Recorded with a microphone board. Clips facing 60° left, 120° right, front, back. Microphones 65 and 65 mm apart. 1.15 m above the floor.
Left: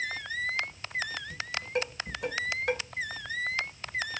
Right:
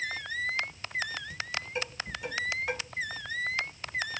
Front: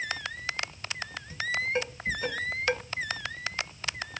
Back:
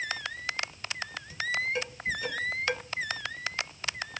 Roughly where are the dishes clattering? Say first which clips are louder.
Left 3 dB, front 1 dB; ahead left.